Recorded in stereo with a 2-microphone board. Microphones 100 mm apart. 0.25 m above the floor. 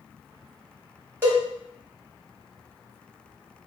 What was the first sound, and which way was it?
A cowbell, 25° right (ahead or behind).